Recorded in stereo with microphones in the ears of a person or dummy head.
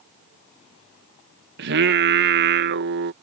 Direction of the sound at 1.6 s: 65° right (ahead or behind).